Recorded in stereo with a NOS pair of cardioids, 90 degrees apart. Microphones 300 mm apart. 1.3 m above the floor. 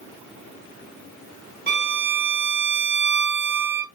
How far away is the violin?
About 1.3 m.